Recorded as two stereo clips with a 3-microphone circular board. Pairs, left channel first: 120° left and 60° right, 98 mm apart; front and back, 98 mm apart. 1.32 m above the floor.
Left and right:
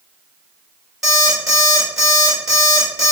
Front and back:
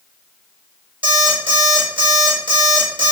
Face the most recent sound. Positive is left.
turn(degrees=-145)